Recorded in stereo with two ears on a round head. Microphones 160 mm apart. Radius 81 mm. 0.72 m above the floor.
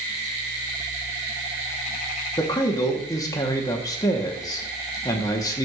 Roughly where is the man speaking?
Centre.